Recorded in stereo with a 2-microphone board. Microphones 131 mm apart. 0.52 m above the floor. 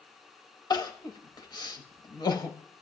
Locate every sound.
0.7 s crying: 30° left (ahead or behind), 0.6 m